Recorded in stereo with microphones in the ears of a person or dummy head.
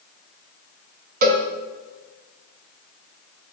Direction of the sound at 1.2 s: 40° right (ahead or behind).